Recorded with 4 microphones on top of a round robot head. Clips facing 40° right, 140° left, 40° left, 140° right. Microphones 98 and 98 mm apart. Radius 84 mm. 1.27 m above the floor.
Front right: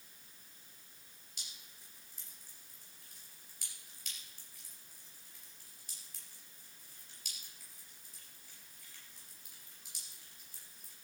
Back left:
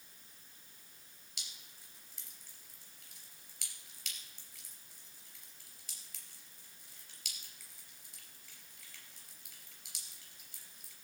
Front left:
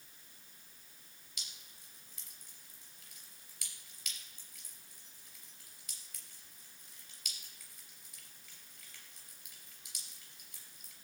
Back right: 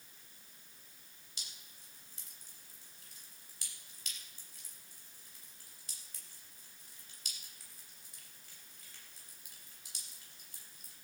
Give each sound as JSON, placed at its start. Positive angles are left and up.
{"t": 1.4, "sound": "dripping", "azimuth_deg": 165, "distance_m": 3.0}